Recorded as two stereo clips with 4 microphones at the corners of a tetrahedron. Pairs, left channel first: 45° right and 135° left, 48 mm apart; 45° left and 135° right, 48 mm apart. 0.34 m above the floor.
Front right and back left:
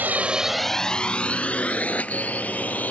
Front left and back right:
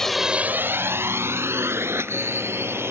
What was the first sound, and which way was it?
A drone, 120° left.